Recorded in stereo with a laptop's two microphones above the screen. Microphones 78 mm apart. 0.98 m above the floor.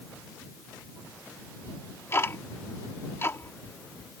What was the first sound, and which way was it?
Ticking, 35° left (ahead or behind).